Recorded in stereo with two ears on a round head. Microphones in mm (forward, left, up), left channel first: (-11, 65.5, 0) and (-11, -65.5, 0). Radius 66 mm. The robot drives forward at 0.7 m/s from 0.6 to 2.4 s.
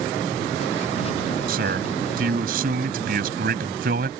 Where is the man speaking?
75° right (ahead or behind); by 4.1 s 70° right (ahead or behind).